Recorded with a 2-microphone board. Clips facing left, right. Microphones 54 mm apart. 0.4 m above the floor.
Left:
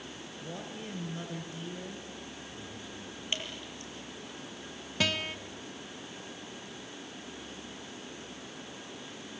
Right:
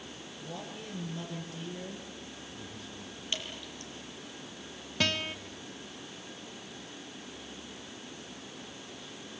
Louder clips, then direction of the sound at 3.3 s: Left 1 dB; 25° left (ahead or behind).